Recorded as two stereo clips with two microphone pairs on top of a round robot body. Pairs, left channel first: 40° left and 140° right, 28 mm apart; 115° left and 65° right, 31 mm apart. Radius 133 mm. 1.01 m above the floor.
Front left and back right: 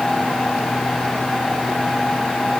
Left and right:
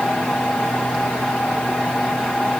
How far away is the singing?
I don't hear singing.